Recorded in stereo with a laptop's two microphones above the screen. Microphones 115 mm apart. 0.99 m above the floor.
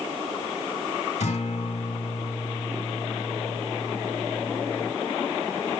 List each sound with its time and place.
1.2 s a guitar: 65° left (ahead or behind), 3 m